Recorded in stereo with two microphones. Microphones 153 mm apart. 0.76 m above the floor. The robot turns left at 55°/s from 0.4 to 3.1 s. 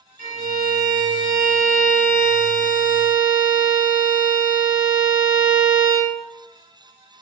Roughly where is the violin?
Behind right.